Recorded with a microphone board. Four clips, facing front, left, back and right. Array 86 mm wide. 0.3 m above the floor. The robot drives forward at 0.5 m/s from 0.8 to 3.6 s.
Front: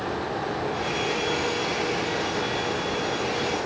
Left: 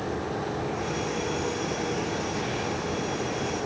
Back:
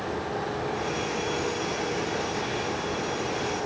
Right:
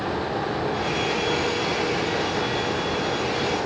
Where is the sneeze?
No sneeze in this recording.